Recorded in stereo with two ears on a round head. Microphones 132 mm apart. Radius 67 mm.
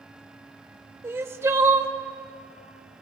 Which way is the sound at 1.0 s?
15° right (ahead or behind).